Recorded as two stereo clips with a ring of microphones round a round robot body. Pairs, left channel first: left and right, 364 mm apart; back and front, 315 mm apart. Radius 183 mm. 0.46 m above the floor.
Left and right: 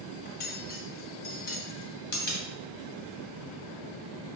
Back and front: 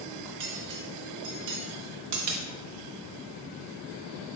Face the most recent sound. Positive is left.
turn(degrees=25)